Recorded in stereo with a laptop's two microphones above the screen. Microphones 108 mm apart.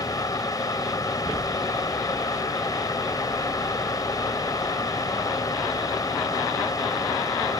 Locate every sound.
0.0 s a fan: 35° left (ahead or behind)